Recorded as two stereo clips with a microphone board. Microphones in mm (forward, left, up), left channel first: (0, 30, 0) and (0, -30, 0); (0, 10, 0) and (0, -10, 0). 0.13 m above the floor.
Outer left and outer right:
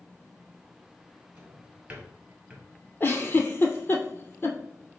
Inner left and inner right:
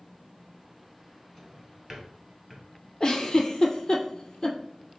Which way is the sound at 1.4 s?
20° right (ahead or behind).